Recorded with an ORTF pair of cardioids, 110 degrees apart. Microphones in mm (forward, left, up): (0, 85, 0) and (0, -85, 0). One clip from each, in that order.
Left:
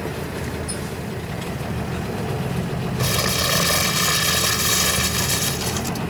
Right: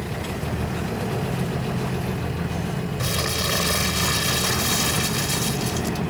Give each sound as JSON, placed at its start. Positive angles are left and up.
{"t": 3.0, "sound": "crumpling", "azimuth_deg": 20}